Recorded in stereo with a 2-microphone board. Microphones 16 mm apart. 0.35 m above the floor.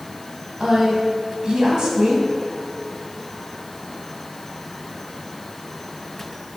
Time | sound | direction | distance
0.6 | a woman speaking | 55° right (ahead or behind) | 2.5 m